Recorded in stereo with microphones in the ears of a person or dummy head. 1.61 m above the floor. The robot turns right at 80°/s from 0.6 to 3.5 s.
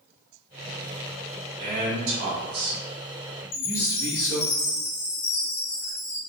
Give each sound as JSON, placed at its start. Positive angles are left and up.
{"t": 1.6, "sound": "a man speaking", "azimuth_deg": -135, "distance_m": 1.5}
{"t": 3.5, "sound": "a chime", "side_deg": 60, "distance_m": 0.8}